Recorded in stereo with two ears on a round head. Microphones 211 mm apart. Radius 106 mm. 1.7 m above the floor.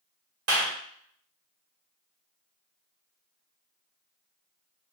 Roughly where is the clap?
Right.